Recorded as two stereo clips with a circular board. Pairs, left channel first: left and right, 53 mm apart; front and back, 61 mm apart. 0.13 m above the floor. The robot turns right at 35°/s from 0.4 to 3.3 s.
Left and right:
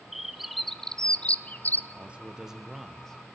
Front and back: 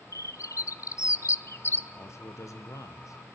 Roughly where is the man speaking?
Ahead right.